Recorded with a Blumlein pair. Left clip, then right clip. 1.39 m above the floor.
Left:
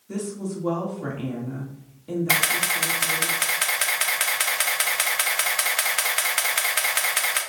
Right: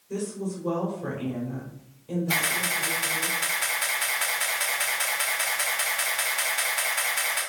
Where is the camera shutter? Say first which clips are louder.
Left 4 dB; 40° left, 1.4 m.